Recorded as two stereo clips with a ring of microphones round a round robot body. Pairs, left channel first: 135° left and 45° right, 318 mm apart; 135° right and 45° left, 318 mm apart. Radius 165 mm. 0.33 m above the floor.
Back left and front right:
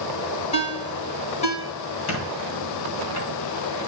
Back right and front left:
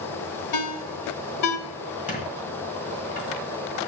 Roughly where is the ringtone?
Behind right.